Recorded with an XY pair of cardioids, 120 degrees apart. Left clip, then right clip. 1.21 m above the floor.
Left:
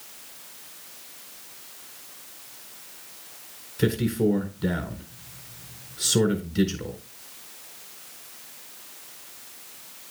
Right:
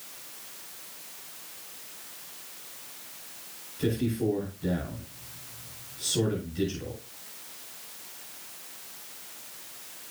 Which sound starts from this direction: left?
A man speaking, at 3.8 s.